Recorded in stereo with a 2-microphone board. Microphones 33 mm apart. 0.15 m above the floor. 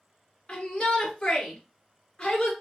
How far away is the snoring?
No snoring in this recording.